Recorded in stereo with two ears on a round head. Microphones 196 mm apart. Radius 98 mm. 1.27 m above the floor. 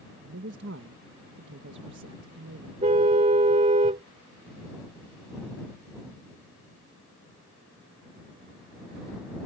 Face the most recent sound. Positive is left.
turn(degrees=-30)  # may be behind; listen again after turning